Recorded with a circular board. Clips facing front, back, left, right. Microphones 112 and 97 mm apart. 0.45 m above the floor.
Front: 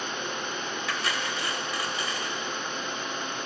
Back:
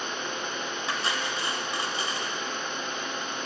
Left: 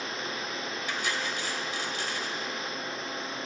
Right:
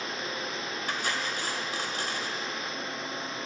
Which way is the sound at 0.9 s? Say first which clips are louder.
Back 1 dB, right 1 dB; 125° right.